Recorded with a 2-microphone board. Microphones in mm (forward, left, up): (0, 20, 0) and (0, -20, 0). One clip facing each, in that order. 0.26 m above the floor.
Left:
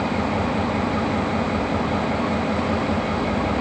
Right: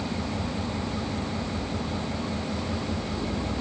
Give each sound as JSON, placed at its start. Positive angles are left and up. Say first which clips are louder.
{"t": 0.0, "sound": "an engine running", "louder": "left 9 dB", "side_deg": 40}